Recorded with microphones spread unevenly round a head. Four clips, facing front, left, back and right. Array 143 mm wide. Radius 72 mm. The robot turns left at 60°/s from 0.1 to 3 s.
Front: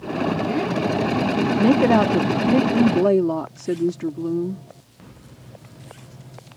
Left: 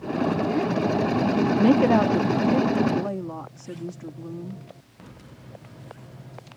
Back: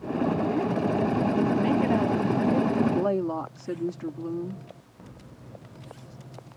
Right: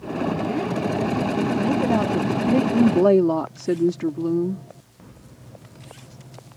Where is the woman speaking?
35° left; by 4.6 s 50° right.